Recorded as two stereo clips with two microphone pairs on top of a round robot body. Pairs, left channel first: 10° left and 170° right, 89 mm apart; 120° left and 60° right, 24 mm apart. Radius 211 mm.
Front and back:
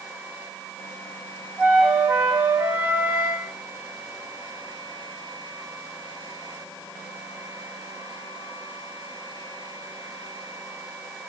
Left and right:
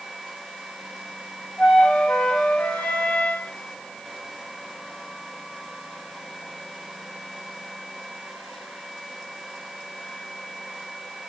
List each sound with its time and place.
1.6 s a flute: 120° left, 0.7 m